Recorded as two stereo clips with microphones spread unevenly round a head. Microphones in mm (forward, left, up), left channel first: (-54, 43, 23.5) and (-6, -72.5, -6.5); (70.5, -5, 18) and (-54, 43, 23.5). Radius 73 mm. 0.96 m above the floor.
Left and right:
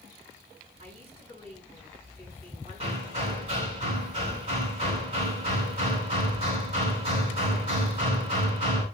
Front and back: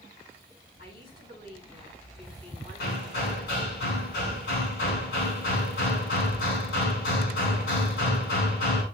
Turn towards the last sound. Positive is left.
turn(degrees=-10)